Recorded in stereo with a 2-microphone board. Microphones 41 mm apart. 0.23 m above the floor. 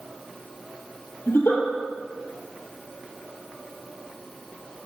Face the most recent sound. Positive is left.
turn(degrees=70)  # may be behind; listen again after turning